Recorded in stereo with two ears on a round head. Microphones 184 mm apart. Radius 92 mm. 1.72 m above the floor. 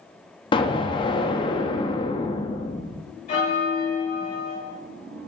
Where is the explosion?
25° left (ahead or behind), 0.6 m.